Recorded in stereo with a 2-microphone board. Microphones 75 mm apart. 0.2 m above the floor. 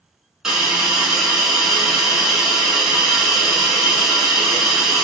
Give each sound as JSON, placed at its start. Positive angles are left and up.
{"t": 0.4, "sound": "a hiss", "side_deg": -5, "distance_m": 1.1}